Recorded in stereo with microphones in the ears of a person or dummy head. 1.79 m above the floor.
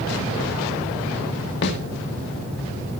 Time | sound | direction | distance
1.6 | a snare drum | 70° left (ahead or behind) | 2.5 m